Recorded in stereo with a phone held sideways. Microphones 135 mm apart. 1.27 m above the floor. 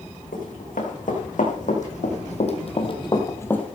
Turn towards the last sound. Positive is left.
turn(degrees=5)  # may be behind; listen again after turning